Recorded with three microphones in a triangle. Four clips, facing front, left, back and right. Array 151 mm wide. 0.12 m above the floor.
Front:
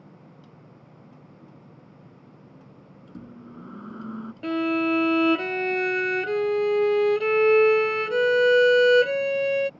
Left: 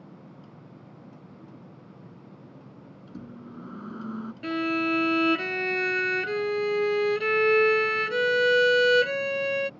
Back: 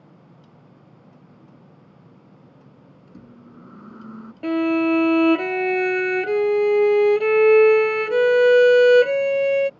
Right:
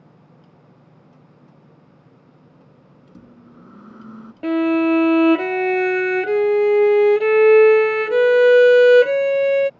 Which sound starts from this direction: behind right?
A violin, at 4.4 s.